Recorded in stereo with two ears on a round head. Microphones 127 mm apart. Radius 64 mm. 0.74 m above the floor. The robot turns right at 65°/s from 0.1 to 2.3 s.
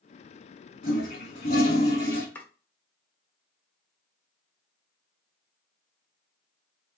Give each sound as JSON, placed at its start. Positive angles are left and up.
{"t": 0.8, "sound": "a toilet flushing", "azimuth_deg": 80, "distance_m": 1.6}
{"t": 2.4, "sound": "chopping", "side_deg": 10, "distance_m": 0.6}